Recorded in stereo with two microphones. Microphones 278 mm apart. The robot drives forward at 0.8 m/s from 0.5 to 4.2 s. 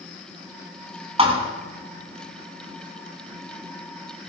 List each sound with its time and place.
1.2 s a thud: 20° right (ahead or behind), 2.5 m